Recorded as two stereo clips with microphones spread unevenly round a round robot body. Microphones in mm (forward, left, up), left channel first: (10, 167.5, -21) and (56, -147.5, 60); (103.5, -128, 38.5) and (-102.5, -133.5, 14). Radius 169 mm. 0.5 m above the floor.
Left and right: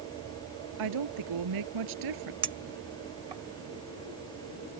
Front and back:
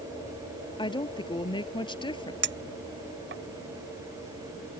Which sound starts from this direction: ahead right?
A woman speaking, at 0.8 s.